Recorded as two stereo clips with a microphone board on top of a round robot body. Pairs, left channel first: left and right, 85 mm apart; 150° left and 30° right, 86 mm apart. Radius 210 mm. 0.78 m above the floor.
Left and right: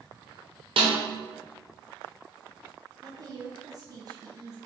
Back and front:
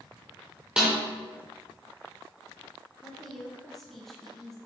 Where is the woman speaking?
125° right, 1.3 m.